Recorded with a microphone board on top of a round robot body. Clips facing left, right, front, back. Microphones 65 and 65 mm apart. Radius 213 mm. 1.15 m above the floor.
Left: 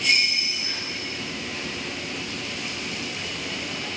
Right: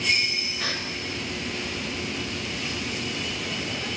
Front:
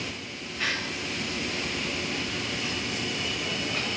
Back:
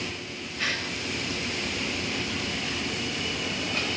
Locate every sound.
0.6 s a gasp: 85° right, 5.5 m